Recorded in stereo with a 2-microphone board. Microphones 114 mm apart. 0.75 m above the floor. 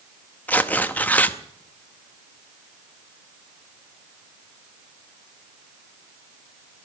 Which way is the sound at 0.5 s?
15° left (ahead or behind).